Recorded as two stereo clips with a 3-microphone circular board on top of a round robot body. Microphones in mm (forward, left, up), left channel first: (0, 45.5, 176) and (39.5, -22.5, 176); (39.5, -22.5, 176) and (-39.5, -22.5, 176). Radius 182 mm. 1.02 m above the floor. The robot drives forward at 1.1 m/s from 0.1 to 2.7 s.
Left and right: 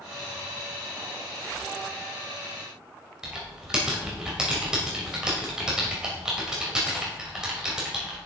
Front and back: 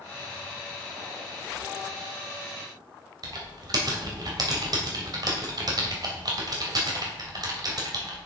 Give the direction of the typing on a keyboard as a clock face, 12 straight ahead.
5 o'clock.